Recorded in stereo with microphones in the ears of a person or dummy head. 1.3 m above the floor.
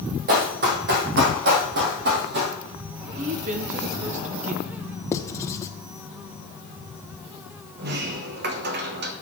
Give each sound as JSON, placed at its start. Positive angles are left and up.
{"t": 0.3, "sound": "running footsteps", "side_deg": -45, "distance_m": 2.0}
{"t": 3.2, "sound": "a woman speaking", "side_deg": -40, "distance_m": 1.0}
{"t": 5.1, "sound": "writing", "side_deg": 15, "distance_m": 0.6}
{"t": 7.8, "sound": "a sliding door", "side_deg": -50, "distance_m": 1.1}